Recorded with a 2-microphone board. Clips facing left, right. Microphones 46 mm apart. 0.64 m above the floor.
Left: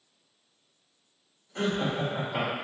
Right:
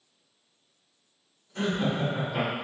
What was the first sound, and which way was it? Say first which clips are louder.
Laughter: right 1 dB; 35° left (ahead or behind).